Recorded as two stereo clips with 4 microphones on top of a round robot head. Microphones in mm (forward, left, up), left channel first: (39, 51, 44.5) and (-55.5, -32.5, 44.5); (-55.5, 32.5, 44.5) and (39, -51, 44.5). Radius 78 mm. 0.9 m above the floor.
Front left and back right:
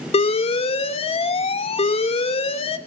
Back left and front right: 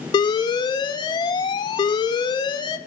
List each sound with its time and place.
0.1 s an alarm: 80° left, 0.9 m